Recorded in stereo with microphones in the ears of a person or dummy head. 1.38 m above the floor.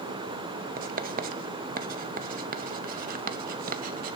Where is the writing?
40° right (ahead or behind), 0.5 m.